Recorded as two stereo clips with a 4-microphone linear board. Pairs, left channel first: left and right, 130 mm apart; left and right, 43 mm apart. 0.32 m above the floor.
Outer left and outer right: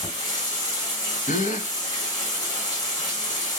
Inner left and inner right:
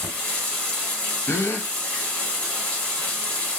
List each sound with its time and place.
0.0 s running water: 30° left (ahead or behind), 1.7 m
1.3 s a gasp: 75° left (ahead or behind), 0.7 m